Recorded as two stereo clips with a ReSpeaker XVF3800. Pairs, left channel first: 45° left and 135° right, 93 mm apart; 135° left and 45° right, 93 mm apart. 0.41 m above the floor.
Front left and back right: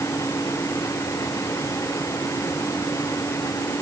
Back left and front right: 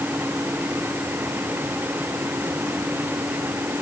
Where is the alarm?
No alarm in this recording.